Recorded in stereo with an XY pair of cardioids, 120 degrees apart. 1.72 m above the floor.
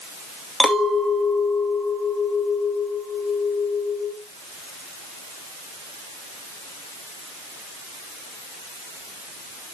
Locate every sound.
0.6 s a clink: straight ahead, 2.5 m